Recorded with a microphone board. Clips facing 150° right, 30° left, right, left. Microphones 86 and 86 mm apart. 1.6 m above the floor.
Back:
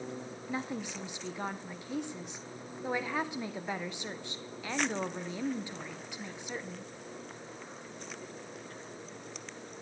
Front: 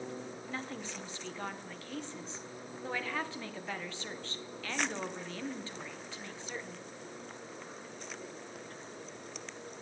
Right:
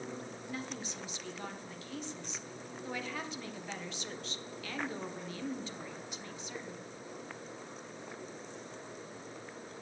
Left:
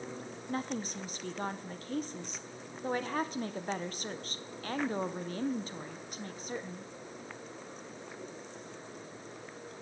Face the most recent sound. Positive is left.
turn(degrees=135)